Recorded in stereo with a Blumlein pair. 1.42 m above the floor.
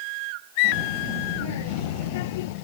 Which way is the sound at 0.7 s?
50° left.